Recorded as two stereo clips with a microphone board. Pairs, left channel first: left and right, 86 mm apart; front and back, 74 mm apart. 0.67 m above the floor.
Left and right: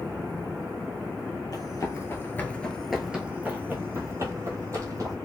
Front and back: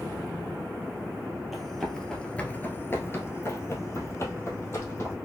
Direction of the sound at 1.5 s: 95° left.